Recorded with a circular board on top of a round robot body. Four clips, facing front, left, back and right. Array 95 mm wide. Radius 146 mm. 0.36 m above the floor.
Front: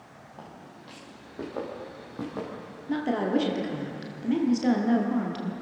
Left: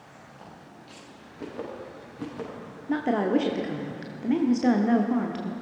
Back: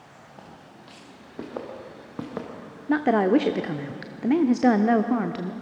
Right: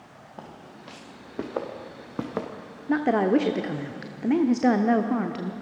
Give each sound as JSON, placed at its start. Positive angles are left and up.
{"t": 0.4, "sound": "footsteps", "azimuth_deg": -90, "distance_m": 3.5}
{"t": 2.9, "sound": "a woman speaking", "azimuth_deg": -155, "distance_m": 1.1}